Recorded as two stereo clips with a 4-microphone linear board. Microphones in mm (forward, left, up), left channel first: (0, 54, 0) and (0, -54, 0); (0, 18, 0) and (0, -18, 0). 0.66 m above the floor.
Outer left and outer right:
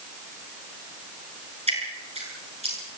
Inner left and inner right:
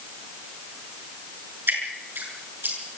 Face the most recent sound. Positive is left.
turn(degrees=-75)  # may be behind; listen again after turning